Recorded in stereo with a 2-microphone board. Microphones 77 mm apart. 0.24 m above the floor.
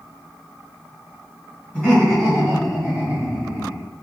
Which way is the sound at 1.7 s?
10° left (ahead or behind).